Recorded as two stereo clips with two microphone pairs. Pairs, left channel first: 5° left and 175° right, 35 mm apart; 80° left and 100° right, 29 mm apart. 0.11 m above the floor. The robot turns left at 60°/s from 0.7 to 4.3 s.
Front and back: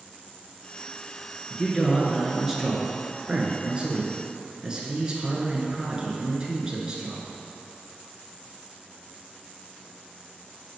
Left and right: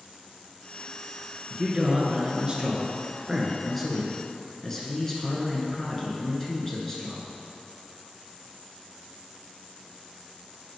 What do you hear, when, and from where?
1.5 s a man speaking: 55° right, 1.6 m; by 7.3 s 140° left, 1.6 m